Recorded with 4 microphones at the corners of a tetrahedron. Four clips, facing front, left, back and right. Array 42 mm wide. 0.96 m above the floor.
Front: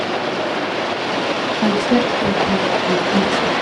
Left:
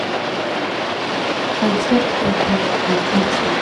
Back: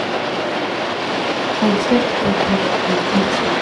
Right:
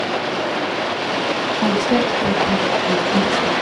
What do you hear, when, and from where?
1.6 s a woman speaking: 165° left, 1.1 m; by 3.5 s 100° left, 1.6 m